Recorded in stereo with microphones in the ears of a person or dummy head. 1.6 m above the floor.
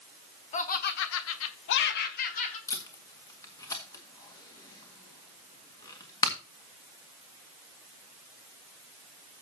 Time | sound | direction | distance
0.5 | laughter | 40° left (ahead or behind) | 1.3 m
2.7 | tape being pulled | 20° left (ahead or behind) | 2.0 m